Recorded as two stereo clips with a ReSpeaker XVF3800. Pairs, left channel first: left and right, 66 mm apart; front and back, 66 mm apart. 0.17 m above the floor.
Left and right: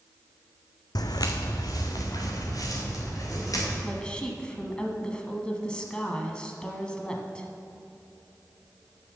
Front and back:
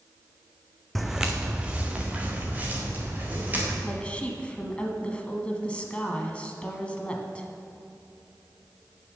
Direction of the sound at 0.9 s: 90° left.